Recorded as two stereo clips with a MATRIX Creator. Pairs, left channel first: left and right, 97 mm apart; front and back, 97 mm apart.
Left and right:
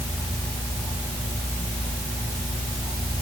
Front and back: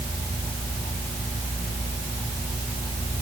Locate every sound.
Only background noise.